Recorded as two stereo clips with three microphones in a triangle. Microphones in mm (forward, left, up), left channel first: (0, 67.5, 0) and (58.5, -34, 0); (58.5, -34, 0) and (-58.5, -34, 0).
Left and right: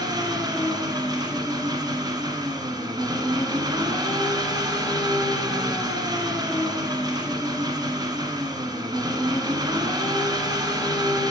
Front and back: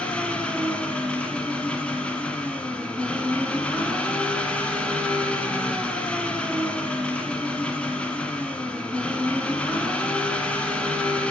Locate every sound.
0.0 s an engine running: 75° right, 0.9 m